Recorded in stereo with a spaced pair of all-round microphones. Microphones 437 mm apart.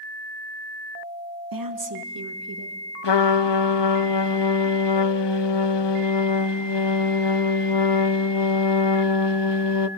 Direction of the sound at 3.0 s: 80° left.